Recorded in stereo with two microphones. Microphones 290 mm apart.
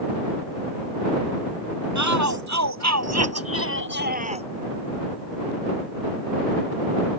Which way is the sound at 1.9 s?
65° right (ahead or behind).